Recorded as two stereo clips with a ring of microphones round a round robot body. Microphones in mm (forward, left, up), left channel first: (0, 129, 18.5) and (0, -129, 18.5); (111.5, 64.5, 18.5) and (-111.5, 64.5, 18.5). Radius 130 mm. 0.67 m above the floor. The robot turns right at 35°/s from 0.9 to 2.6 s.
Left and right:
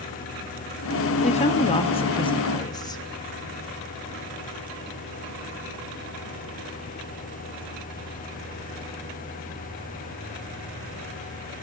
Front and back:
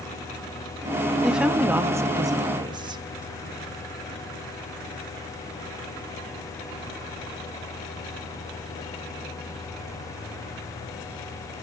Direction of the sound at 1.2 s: 95° left.